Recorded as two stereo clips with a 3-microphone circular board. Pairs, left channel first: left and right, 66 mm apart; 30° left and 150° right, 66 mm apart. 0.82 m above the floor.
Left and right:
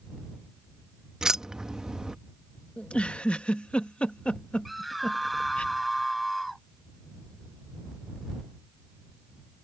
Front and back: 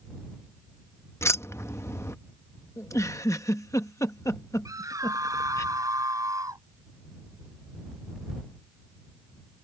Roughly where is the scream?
Behind.